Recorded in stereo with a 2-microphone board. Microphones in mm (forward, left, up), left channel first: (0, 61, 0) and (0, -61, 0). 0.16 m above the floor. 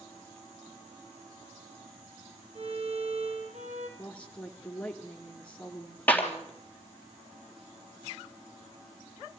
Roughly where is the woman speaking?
Centre.